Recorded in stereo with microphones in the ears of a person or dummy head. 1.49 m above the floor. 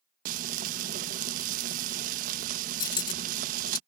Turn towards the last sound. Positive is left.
turn(degrees=20)  # may be behind; listen again after turning